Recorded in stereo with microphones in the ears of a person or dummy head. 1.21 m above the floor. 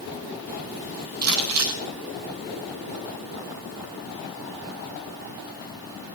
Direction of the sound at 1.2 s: 85° right.